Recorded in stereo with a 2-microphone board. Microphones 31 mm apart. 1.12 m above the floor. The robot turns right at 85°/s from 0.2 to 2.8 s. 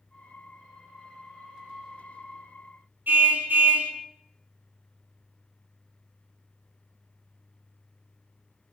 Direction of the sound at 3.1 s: 85° right.